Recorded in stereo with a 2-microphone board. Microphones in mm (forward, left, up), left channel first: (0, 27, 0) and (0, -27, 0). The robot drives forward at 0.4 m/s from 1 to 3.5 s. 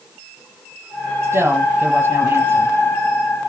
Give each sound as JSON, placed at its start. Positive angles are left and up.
{"t": 1.2, "sound": "a woman speaking", "side_deg": -45, "distance_m": 1.4}